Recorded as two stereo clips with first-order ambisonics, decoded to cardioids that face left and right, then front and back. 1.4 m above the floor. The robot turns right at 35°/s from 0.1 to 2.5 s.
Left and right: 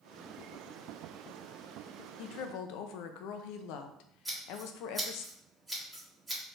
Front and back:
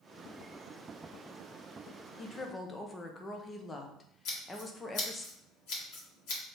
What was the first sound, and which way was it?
A woman speaking, 65° left.